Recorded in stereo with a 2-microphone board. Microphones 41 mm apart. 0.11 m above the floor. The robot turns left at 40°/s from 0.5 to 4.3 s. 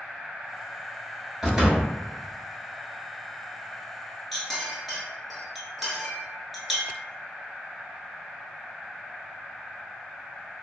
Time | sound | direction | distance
1.4 | a door slam | 15° right (ahead or behind) | 1.0 m
4.3 | a clink | centre (ahead or behind) | 0.9 m